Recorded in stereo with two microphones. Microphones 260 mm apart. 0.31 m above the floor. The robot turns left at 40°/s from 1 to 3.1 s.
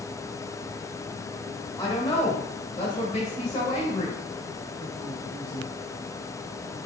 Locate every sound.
1.8 s a woman speaking: 15° left (ahead or behind), 1.5 m; by 5.7 s 25° left (ahead or behind), 1.5 m